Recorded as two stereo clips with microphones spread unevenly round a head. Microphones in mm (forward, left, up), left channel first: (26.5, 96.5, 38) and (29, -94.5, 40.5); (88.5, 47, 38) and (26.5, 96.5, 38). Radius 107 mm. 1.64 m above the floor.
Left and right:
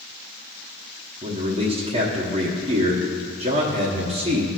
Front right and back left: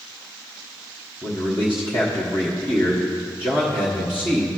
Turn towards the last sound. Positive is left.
turn(degrees=-150)